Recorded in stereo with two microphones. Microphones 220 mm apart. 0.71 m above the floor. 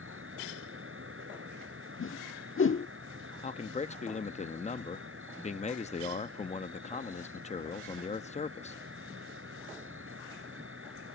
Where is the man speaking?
30° left (ahead or behind).